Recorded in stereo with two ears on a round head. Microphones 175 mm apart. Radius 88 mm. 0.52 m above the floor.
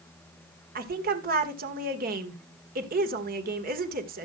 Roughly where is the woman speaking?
Right.